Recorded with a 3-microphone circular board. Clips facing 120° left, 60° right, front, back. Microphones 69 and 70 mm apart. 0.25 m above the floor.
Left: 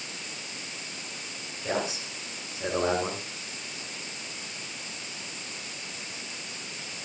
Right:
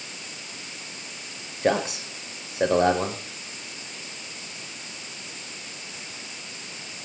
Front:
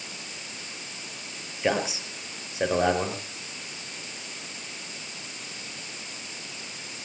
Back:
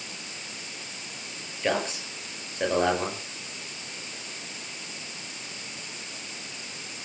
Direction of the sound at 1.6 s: 80° right.